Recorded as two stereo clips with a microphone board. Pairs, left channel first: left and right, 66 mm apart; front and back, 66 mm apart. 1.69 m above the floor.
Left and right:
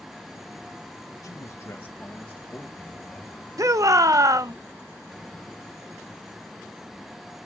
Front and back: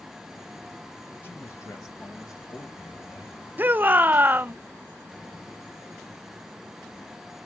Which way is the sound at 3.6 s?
120° right.